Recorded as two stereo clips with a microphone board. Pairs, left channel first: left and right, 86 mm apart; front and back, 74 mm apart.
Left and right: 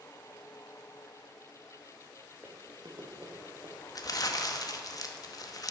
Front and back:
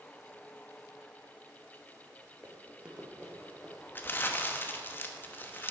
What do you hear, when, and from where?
2.4 s running footsteps: 130° right, 1.5 m; by 3.7 s 90° right, 3 m
4.0 s crumpling: 55° left, 0.8 m